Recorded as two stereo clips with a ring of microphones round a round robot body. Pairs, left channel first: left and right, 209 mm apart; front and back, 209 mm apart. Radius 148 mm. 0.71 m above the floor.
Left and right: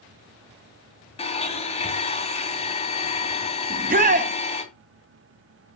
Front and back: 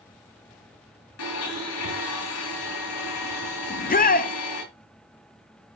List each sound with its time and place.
1.2 s a blender: 30° left, 2.5 m
3.7 s a shout: 45° right, 0.9 m